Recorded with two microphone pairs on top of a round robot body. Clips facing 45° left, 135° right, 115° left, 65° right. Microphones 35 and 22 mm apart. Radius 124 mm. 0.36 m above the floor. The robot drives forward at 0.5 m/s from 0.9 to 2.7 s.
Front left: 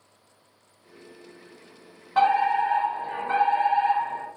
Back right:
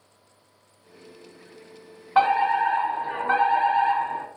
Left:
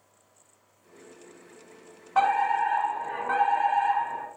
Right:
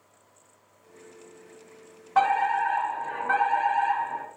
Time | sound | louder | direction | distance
2.1 | a fire alarm | back right 1 dB, even | 130° right | 1.8 m